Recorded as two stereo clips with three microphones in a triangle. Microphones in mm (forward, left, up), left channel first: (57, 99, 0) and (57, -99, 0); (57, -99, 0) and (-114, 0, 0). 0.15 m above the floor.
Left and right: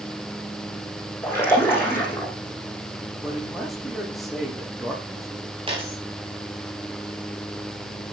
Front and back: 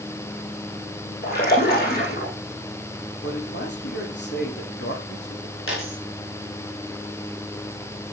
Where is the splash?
10° left, 8 m.